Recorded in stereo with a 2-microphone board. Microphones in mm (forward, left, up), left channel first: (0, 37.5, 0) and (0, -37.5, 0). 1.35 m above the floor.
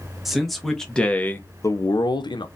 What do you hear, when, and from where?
0.2 s a man speaking: centre (ahead or behind), 1.4 m; by 2.5 s 80° left, 0.8 m